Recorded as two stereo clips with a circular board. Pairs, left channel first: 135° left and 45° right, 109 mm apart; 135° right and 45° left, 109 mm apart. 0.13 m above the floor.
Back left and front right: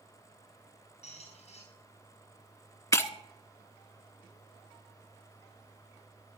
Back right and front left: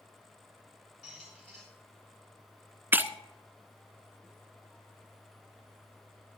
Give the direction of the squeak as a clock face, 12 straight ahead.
7 o'clock.